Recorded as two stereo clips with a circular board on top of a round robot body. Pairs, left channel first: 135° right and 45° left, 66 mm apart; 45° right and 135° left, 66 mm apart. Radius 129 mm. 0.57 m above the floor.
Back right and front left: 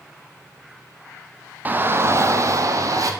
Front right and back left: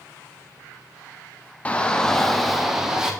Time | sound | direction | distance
1.6 | a shout | 10° left | 1.0 m